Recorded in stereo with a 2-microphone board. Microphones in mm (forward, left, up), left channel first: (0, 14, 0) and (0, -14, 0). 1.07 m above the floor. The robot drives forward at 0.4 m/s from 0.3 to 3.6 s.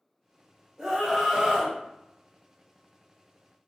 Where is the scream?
15° right (ahead or behind), 1.4 m; by 1.8 s 20° right (ahead or behind), 1.1 m.